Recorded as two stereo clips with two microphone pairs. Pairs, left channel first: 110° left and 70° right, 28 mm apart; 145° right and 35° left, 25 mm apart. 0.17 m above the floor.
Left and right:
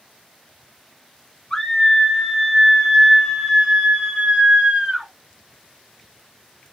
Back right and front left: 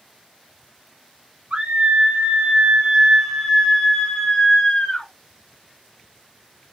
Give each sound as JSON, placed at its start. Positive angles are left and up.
{"t": 1.5, "sound": "a scream", "azimuth_deg": 50, "distance_m": 2.0}